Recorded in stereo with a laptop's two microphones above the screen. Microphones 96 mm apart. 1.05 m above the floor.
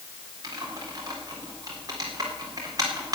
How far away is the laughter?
No laughter in this recording.